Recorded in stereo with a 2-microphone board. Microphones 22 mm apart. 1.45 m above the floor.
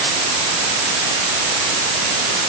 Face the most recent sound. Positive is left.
No sound to turn to.